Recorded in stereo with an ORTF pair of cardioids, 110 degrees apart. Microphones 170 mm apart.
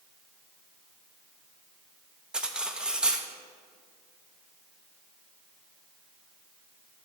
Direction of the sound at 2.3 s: 5° right.